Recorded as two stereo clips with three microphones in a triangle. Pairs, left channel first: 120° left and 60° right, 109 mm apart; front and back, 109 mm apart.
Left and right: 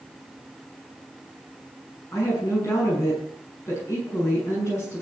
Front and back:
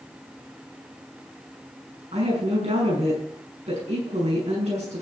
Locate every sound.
2.1 s a woman speaking: straight behind, 6.5 m